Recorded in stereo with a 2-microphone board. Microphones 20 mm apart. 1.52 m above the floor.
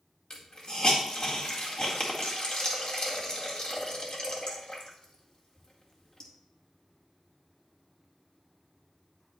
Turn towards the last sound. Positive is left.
turn(degrees=45)  # may be behind; listen again after turning